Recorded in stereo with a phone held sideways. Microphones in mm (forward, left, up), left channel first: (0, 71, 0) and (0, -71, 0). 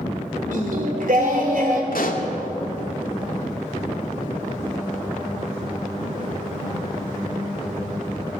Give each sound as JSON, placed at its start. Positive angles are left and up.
{"t": 0.5, "sound": "singing", "side_deg": -75, "distance_m": 3.0}
{"t": 1.9, "sound": "a pop", "side_deg": 85, "distance_m": 2.0}